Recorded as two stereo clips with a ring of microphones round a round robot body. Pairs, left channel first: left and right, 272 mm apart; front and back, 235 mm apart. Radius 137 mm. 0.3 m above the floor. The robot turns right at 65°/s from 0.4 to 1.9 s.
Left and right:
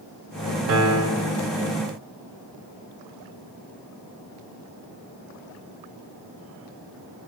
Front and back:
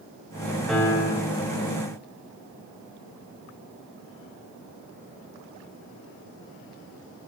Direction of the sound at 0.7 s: 90° right.